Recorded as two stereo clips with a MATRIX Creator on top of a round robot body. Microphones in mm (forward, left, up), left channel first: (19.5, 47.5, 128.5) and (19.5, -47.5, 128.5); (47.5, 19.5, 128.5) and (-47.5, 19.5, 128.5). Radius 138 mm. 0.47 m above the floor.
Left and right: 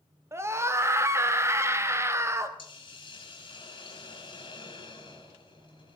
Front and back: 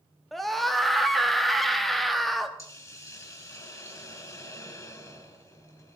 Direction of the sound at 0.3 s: 85° right.